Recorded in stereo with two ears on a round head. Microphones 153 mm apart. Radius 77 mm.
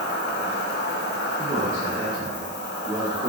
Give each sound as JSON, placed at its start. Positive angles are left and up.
{"t": 0.0, "sound": "an insect", "side_deg": 65, "distance_m": 0.7}
{"t": 1.4, "sound": "a man speaking", "side_deg": -45, "distance_m": 1.4}